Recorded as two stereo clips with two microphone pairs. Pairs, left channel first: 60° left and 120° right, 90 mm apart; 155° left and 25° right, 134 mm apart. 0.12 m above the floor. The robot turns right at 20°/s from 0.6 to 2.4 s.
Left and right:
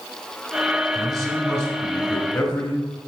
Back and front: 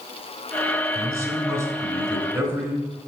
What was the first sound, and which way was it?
A man speaking, 20° right.